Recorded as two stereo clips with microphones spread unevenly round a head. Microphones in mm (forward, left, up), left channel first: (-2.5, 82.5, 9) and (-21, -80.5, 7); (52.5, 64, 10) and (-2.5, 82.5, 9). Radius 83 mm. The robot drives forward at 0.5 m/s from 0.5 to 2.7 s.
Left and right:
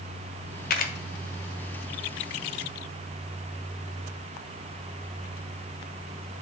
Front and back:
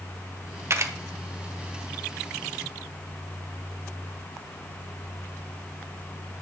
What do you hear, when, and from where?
0.7 s a camera shutter: 120° left, 0.9 m; by 0.9 s 125° left, 1.0 m